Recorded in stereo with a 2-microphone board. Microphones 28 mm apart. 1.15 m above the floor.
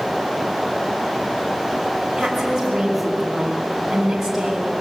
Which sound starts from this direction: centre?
A woman speaking, at 2.2 s.